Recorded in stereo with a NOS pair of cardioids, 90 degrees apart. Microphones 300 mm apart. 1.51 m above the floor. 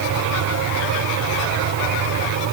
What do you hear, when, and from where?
0.0 s a fan: 70° right